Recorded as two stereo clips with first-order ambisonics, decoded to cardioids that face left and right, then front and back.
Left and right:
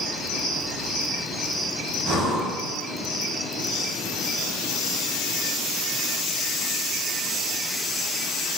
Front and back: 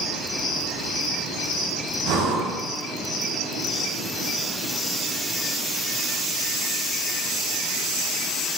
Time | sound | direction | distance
2.0 | breathing | 145° right | 2.5 m